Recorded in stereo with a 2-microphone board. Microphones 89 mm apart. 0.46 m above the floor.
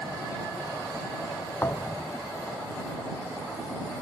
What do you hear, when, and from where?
1.6 s a thud: 25° left (ahead or behind)